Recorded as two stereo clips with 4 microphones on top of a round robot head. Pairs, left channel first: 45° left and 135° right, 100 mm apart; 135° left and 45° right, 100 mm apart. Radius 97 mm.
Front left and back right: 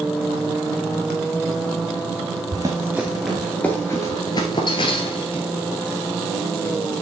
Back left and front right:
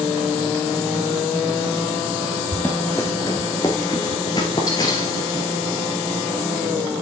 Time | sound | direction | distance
2.5 | running footsteps | 160° right | 1.2 m